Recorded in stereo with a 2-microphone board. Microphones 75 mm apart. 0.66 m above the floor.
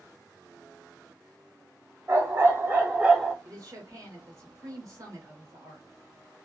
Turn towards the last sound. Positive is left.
turn(degrees=-50)  # may be behind; listen again after turning